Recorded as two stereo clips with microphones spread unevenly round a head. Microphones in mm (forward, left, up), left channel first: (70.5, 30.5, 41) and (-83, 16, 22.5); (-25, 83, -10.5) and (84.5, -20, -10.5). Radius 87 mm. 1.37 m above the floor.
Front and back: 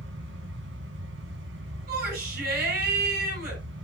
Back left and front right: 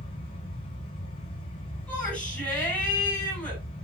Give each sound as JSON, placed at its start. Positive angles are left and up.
{"t": 0.0, "sound": "a fan", "azimuth_deg": -165, "distance_m": 3.0}
{"t": 1.9, "sound": "a shout", "azimuth_deg": -140, "distance_m": 6.5}